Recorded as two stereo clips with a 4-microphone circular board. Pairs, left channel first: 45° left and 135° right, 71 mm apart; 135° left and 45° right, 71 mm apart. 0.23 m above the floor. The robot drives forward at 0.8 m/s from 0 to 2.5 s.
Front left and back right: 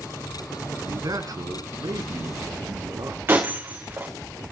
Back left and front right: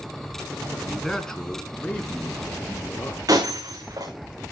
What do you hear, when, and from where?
0.8 s a man speaking: 135° right, 1.7 m; by 3.4 s 155° right, 3 m
3.3 s breaking glass: 75° right, 5 m